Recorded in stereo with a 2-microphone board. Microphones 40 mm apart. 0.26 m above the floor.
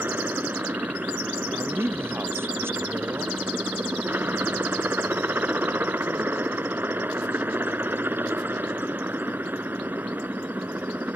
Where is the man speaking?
80° right.